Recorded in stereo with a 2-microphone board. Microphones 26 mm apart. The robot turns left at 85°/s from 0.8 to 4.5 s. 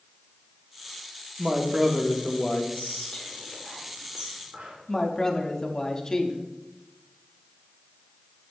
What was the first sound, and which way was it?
A woman speaking, 125° right.